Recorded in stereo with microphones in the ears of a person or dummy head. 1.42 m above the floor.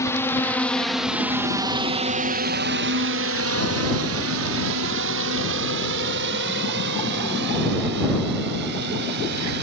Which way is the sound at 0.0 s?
10° left (ahead or behind).